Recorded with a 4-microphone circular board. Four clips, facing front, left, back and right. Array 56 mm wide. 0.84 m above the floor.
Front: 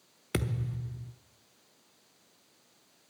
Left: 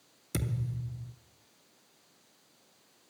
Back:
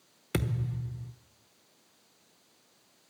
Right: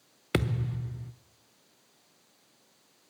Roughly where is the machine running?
I don't hear a machine running.